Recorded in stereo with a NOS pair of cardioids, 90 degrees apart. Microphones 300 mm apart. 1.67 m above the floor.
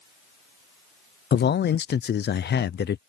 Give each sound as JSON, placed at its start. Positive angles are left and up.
{"t": 1.3, "sound": "a man speaking", "azimuth_deg": 35}